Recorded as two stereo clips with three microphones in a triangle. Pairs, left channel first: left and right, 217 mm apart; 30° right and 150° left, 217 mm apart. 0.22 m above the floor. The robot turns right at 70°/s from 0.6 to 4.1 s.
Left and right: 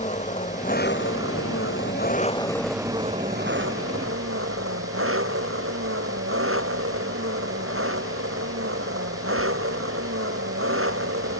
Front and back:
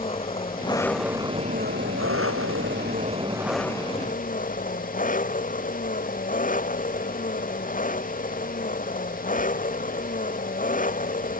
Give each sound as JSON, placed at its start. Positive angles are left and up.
{"t": 0.0, "sound": "an engine running", "azimuth_deg": 35}